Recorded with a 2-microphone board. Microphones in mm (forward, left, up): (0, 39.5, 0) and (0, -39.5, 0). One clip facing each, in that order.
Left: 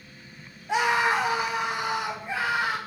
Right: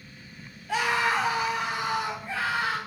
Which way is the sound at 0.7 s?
20° left (ahead or behind).